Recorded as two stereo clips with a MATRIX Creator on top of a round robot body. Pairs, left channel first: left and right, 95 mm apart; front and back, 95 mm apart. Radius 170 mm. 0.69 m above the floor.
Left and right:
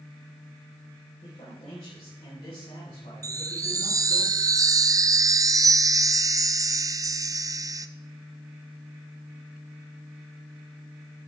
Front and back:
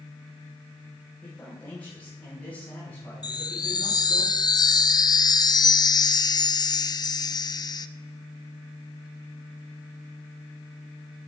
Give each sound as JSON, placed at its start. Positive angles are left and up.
{"t": 1.2, "sound": "a man speaking", "azimuth_deg": 75, "distance_m": 4.5}
{"t": 3.2, "sound": "a chime", "azimuth_deg": -40, "distance_m": 0.6}